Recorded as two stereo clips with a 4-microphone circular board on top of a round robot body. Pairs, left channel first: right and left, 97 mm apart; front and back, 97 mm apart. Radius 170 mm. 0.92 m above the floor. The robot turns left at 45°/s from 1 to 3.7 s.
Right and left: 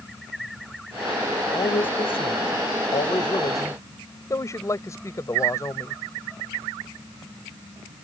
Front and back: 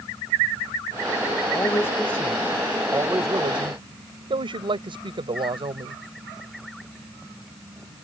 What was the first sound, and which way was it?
A man speaking, 50° right.